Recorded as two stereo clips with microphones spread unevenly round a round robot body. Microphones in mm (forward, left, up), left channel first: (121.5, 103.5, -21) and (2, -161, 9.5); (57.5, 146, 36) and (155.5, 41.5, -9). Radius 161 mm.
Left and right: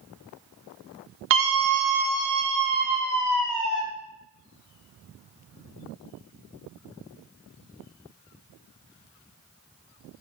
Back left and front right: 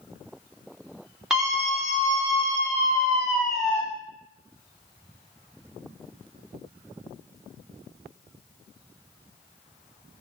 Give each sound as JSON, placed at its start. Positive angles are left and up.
{"t": 1.3, "sound": "a scream", "azimuth_deg": -105, "distance_m": 0.9}